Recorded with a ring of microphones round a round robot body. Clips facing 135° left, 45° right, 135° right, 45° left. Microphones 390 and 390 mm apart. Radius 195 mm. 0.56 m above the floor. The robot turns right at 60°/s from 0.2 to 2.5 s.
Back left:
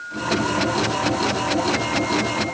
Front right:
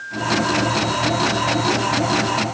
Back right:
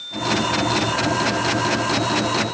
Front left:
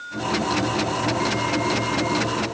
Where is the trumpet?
No trumpet in this recording.